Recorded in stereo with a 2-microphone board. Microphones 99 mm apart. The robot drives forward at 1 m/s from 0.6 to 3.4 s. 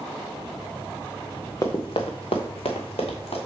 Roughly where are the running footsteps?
Left.